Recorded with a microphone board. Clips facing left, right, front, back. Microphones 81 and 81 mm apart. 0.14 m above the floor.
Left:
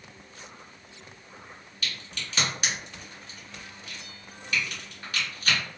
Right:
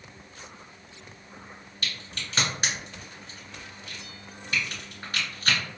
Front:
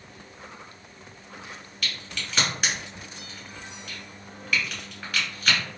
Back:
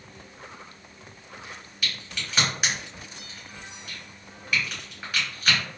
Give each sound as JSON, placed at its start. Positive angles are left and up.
{"t": 1.8, "sound": "a crack", "azimuth_deg": -105, "distance_m": 1.6}